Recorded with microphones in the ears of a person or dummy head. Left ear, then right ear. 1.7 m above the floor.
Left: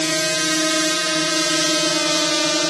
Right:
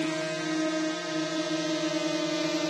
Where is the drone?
60° left (ahead or behind); by 2.7 s 45° left (ahead or behind).